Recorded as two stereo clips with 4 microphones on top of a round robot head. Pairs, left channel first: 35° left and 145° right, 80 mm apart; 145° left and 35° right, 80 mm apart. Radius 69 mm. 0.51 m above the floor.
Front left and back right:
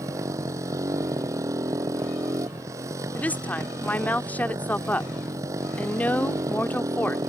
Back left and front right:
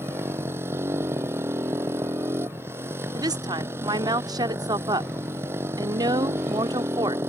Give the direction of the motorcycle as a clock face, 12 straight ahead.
3 o'clock.